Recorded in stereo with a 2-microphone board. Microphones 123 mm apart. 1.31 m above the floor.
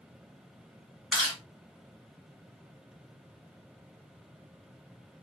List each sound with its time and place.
1.1 s chewing: 5° left (ahead or behind), 1.5 m